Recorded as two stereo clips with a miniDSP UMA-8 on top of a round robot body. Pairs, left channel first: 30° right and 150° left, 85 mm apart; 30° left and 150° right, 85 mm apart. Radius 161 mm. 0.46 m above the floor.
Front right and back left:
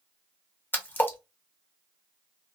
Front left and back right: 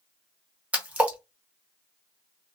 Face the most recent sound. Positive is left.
turn(degrees=-85)